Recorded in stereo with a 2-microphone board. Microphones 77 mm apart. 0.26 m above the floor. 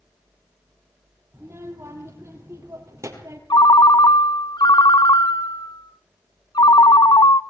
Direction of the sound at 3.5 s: 65° left (ahead or behind).